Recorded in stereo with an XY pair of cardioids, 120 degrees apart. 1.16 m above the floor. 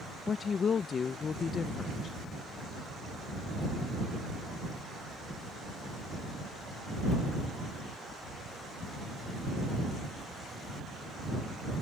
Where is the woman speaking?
40° left.